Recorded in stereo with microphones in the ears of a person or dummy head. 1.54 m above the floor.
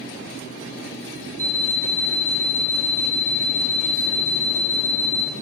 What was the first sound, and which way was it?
An alarm clock, 10° left (ahead or behind).